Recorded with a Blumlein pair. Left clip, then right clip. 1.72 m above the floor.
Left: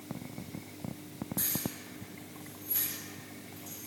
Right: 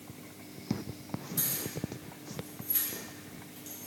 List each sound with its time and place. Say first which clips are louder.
1.4 s keys jangling: even; 60° right, 1.9 m